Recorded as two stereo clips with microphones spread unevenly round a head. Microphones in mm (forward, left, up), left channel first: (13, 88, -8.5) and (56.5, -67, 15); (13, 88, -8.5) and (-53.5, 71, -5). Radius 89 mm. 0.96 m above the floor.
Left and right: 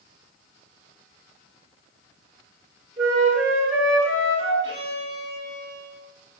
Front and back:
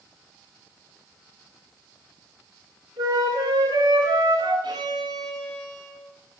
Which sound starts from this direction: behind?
A flute, at 3.0 s.